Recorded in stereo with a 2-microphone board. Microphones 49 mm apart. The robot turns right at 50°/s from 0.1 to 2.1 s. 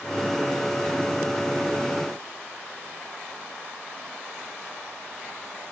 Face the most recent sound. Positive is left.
No sound to turn to.